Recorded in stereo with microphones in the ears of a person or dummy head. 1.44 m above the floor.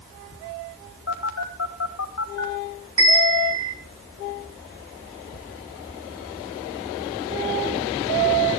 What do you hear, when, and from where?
1.1 s a phone buzzing: 85° left, 3 m
3.0 s a bell: 25° right (ahead or behind), 2 m